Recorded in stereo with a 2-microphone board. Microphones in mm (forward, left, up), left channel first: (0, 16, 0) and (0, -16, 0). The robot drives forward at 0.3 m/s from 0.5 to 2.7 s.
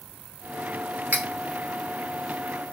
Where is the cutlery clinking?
65° right (ahead or behind), 0.7 m; by 1.3 s 70° right (ahead or behind), 0.7 m.